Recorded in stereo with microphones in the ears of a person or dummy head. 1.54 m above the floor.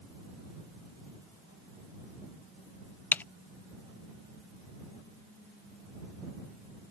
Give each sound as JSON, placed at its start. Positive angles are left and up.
{"t": 3.1, "sound": "typing on a keyboard", "side_deg": 10}